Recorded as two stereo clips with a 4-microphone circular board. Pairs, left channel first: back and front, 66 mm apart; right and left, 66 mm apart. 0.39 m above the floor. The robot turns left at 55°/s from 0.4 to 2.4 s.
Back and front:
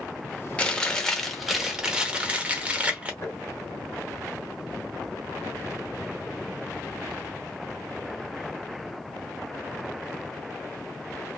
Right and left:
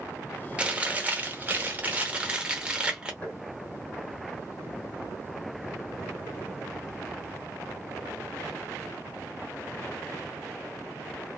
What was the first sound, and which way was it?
Chewing, 135° left.